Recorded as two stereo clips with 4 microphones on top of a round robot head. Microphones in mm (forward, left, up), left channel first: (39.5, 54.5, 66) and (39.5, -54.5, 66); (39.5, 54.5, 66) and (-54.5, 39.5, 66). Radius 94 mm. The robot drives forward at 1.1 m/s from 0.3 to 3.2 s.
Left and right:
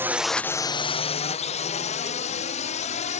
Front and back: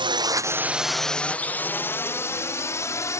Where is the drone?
160° right; by 3.2 s 70° left.